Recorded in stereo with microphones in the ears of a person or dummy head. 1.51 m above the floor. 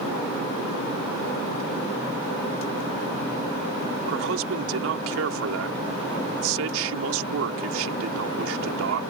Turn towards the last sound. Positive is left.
turn(degrees=-90)